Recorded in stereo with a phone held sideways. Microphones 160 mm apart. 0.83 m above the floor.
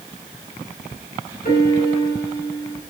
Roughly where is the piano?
Left.